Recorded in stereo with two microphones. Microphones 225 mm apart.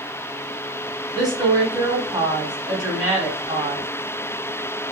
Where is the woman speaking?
20° right (ahead or behind), 1.3 m.